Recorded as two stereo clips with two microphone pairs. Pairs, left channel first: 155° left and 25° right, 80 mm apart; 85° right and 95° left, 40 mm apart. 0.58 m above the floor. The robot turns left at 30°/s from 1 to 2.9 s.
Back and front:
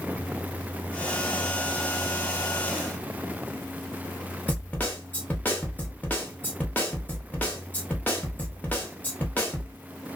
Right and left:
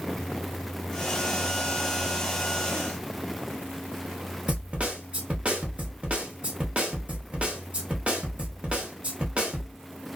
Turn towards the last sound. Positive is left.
turn(degrees=110)